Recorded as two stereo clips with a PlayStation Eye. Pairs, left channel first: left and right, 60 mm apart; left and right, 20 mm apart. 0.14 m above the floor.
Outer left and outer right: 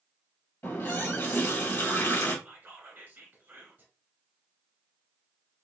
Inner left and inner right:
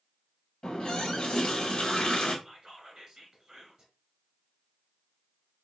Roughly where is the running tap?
Left.